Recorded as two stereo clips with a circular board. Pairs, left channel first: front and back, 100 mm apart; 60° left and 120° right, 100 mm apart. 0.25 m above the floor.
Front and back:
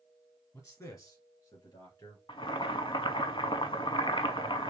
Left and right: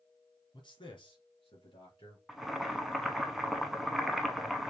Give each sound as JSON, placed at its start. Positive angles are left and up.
{"t": 0.5, "sound": "a man speaking", "azimuth_deg": 50, "distance_m": 2.0}
{"t": 2.3, "sound": "boiling", "azimuth_deg": -30, "distance_m": 0.7}